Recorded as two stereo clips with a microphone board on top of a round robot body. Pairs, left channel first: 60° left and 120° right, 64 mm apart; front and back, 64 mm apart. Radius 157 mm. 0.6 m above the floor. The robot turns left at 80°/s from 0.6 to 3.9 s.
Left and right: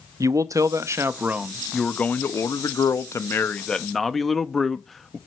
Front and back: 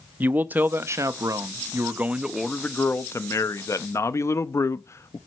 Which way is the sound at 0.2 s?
125° right.